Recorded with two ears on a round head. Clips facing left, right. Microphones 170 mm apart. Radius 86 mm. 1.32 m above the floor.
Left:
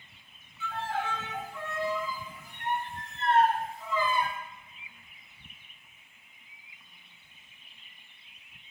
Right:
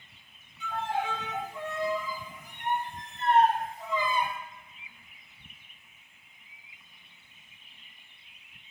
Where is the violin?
15° right (ahead or behind), 0.9 m.